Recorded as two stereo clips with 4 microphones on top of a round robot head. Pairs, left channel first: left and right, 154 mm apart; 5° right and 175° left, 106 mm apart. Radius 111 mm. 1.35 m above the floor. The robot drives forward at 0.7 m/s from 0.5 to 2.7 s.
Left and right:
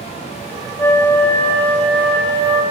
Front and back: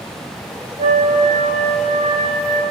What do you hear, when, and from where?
0.8 s a flute: 165° left, 1.1 m; by 2.6 s 175° left, 2.5 m